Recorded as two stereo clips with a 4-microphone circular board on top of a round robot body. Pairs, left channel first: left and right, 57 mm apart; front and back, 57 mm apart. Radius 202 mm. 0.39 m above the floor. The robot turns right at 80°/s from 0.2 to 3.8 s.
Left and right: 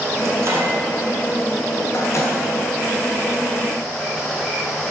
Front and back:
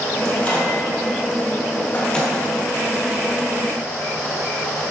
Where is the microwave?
80° right, 1.6 m; by 2.4 s 85° left, 1.6 m.